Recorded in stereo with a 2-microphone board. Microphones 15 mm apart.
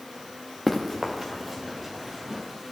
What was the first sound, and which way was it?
Running footsteps, 5° right (ahead or behind).